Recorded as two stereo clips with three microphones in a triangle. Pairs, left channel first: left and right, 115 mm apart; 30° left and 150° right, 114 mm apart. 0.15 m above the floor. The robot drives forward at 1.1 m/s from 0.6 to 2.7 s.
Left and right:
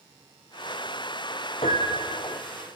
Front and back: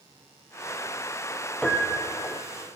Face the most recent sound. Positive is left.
turn(degrees=140)